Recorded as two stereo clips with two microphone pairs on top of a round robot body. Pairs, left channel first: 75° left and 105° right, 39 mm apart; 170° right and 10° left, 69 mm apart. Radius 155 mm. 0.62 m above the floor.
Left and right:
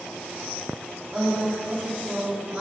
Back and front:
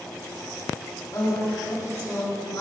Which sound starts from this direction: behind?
A woman speaking, at 1.1 s.